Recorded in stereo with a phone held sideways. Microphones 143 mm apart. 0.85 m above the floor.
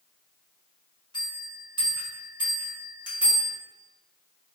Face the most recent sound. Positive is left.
turn(degrees=30)  # may be behind; listen again after turning